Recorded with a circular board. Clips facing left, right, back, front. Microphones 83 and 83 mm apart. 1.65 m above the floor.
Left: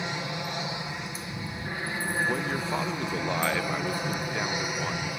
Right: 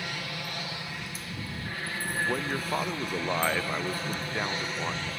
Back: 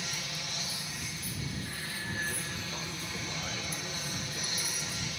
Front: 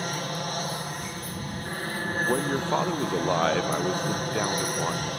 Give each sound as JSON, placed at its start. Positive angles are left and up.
{"t": 0.0, "sound": "an aircraft", "azimuth_deg": 25}
{"t": 2.2, "sound": "a man speaking", "azimuth_deg": -5}